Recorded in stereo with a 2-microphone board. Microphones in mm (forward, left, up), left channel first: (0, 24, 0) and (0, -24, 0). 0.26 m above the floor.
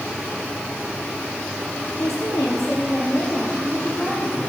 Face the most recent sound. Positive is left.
turn(degrees=50)  # may be behind; listen again after turning